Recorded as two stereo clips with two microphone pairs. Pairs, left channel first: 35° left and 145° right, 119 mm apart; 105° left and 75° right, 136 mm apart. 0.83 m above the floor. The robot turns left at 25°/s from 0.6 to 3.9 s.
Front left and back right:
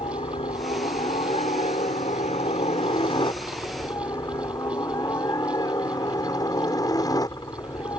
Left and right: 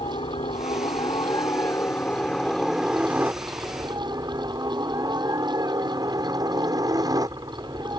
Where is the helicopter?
65° left; by 8.0 s 20° right.